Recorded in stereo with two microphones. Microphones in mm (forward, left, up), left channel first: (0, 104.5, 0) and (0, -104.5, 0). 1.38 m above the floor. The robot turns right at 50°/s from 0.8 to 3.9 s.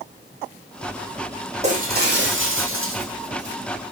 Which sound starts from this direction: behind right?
Breaking glass, at 1.6 s.